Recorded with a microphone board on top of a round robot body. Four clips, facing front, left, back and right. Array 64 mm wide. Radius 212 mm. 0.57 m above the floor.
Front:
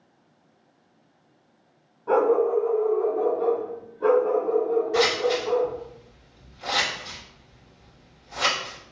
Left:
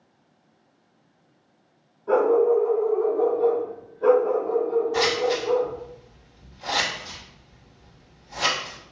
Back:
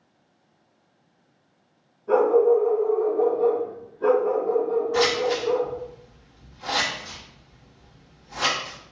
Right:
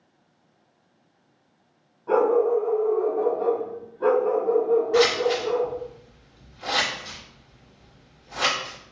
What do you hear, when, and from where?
2.1 s a dog barking: 15° right, 0.9 m; by 5.7 s 105° right, 1.8 m
4.9 s scissors: 85° right, 1.6 m